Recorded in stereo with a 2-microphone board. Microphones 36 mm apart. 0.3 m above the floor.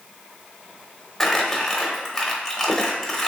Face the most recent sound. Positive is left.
turn(degrees=10)  # may be behind; listen again after turning